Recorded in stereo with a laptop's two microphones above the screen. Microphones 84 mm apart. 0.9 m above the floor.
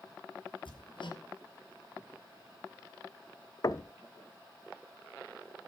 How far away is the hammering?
About 3 m.